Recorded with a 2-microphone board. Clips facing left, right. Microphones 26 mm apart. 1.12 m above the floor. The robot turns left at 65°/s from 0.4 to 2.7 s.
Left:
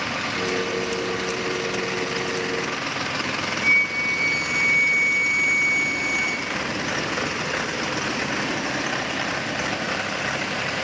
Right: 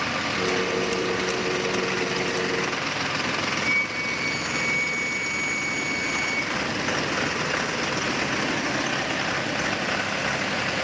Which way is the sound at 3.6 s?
5° left (ahead or behind).